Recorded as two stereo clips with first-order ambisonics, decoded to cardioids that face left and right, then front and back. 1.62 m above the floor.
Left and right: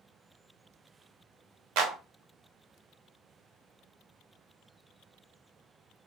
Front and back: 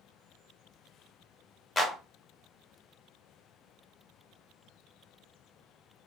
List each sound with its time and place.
1.8 s a clap: 70° right, 0.8 m